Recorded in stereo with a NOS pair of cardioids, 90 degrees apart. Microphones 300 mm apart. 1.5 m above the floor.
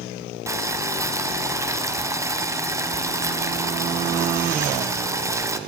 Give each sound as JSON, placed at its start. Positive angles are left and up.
{"t": 0.5, "sound": "boiling", "azimuth_deg": -10, "distance_m": 0.6}